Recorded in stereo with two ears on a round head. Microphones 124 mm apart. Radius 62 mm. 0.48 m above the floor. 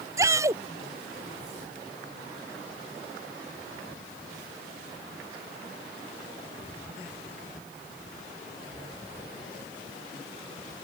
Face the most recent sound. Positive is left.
turn(degrees=-20)  # may be behind; listen again after turning